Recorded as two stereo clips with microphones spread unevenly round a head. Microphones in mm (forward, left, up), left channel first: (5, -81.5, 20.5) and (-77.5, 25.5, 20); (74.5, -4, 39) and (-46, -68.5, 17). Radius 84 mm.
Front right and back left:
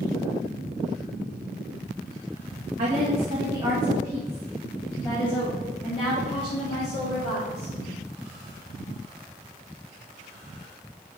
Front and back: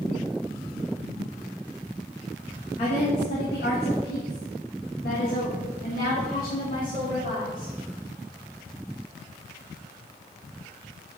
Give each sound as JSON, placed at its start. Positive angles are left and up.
{"t": 2.8, "sound": "a woman speaking", "azimuth_deg": 85, "distance_m": 1.6}